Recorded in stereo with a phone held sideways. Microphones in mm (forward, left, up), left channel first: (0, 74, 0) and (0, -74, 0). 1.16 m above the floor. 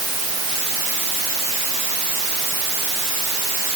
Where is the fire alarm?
No fire alarm in this recording.